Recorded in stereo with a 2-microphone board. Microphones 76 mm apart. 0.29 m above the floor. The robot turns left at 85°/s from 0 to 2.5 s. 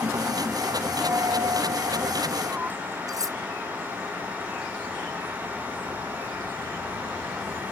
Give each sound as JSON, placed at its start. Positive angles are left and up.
{"t": 1.0, "sound": "a dropped coin", "azimuth_deg": -30}
{"t": 3.1, "sound": "cutlery clinking", "side_deg": -50}